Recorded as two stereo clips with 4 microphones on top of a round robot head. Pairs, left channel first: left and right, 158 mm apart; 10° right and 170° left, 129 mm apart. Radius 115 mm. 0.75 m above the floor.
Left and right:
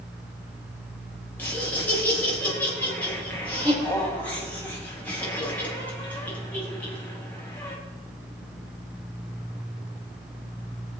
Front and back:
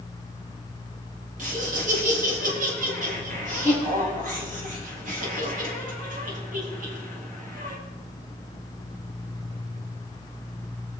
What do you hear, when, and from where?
1.4 s laughter: 170° left, 5.5 m